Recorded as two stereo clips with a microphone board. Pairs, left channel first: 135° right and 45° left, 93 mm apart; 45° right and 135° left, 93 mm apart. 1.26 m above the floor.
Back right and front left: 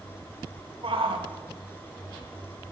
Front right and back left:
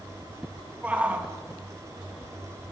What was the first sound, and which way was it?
A shout, 60° left.